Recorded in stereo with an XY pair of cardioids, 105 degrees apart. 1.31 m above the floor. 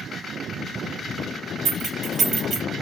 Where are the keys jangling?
50° right, 1.5 m.